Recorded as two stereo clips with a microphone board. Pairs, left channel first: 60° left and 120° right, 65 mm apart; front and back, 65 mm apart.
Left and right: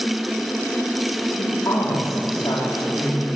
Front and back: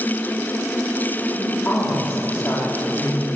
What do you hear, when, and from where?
1.4 s a woman speaking: 55° left, 4.5 m